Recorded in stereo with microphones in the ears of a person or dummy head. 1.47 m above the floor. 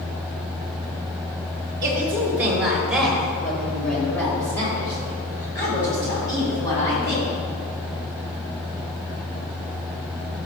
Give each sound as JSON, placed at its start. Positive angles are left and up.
{"t": 1.8, "sound": "a woman speaking", "side_deg": -20, "distance_m": 2.5}